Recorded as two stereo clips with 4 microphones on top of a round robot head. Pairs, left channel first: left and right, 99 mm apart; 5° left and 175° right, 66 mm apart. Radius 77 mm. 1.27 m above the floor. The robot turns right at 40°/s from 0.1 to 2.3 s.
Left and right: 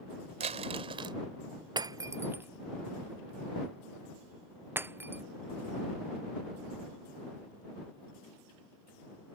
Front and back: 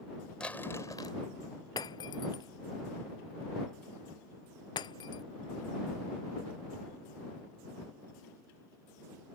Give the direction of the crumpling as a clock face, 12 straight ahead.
3 o'clock.